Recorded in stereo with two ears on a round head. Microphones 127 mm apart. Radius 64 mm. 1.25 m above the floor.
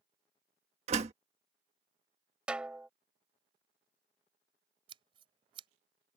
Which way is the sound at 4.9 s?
35° right (ahead or behind).